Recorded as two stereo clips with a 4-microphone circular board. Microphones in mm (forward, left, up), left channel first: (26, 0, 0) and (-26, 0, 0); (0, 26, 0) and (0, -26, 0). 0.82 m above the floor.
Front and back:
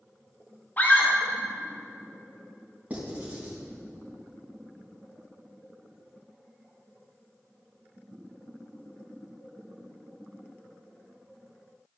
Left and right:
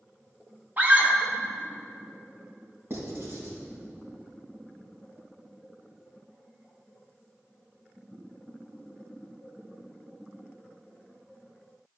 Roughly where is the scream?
Ahead right.